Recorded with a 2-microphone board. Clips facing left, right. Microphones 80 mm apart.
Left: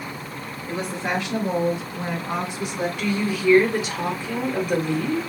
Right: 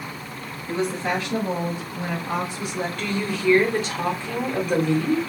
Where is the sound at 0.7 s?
15° left (ahead or behind), 1.4 m.